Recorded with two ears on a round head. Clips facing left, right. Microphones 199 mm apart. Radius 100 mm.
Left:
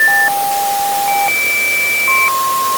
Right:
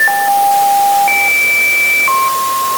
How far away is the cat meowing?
I don't hear a cat meowing.